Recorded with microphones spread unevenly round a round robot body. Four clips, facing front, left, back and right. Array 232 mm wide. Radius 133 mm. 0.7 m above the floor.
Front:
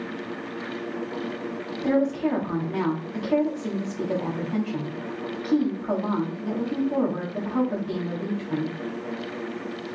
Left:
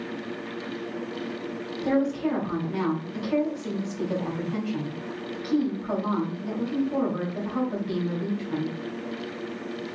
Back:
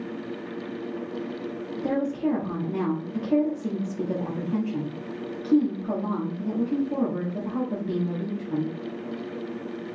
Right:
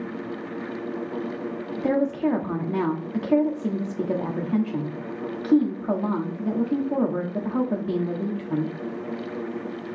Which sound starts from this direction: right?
A woman speaking, at 1.8 s.